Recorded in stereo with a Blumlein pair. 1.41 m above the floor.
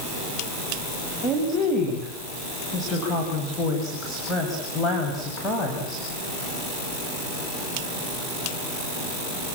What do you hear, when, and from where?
1.2 s a woman speaking: 5° left, 8 m